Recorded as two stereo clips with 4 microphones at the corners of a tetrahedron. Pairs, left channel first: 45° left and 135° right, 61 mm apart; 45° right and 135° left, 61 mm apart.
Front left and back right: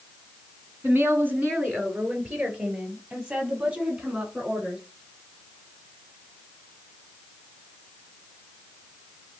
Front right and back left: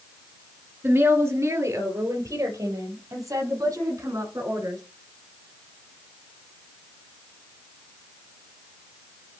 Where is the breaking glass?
I don't hear breaking glass.